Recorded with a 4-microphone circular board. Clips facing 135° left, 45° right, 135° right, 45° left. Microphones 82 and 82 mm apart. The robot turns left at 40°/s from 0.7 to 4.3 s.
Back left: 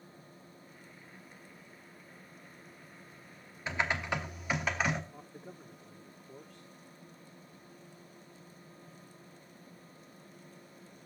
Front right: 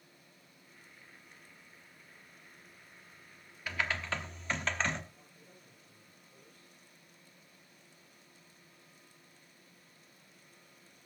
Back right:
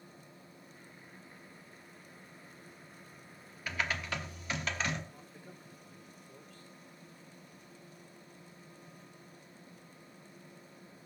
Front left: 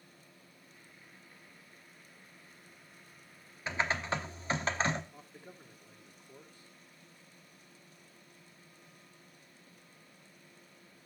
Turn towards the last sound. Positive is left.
turn(degrees=120)